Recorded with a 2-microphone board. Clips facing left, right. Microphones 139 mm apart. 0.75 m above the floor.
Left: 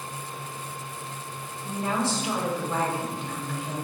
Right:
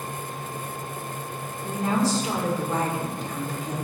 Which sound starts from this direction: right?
A woman speaking, at 1.6 s.